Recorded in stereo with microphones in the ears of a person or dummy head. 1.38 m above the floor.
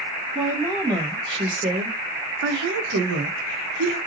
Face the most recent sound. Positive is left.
turn(degrees=-60)  # may be behind; listen again after turning